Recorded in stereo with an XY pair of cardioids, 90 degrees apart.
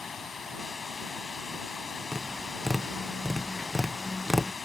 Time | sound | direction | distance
0.0 | running water | 40° left | ?
2.1 | tapping | 10° left | ?